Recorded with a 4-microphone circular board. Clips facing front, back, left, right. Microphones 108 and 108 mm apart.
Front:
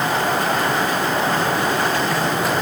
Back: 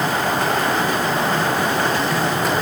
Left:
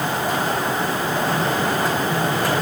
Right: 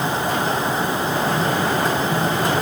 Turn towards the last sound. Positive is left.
No sound to turn to.